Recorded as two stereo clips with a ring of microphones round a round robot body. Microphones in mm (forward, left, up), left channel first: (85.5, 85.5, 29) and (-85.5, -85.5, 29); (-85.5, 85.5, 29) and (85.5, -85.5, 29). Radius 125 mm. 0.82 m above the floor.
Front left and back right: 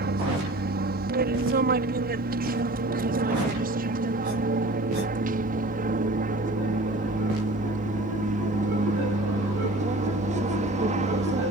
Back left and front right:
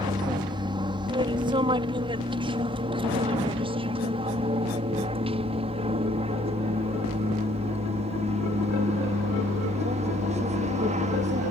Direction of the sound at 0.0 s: 110° right.